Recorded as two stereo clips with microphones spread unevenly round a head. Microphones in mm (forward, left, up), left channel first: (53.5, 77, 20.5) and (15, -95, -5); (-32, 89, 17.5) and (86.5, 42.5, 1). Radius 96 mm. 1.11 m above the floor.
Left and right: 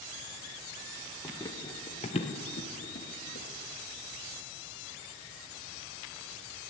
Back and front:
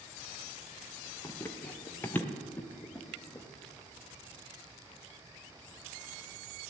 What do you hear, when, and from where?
1.2 s running footsteps: 125° left, 1.2 m; by 3.5 s 85° left, 1.8 m